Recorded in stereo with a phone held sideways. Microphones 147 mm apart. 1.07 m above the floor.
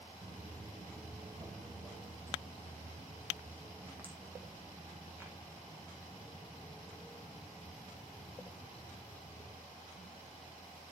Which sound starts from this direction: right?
Footsteps, at 0.2 s.